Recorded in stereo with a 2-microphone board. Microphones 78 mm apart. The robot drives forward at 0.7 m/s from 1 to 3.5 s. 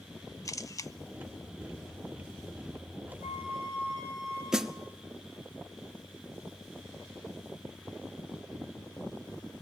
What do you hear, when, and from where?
0.5 s a camera shutter: 40° left (ahead or behind), 0.6 m
3.2 s a flute: 35° right (ahead or behind), 7 m
4.5 s a snare drum: 5° right (ahead or behind), 0.9 m